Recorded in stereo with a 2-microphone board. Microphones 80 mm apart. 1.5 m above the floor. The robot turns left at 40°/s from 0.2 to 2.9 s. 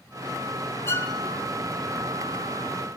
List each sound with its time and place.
0.9 s a violin: 30° left (ahead or behind), 1.6 m; by 1.1 s 25° left (ahead or behind), 1.6 m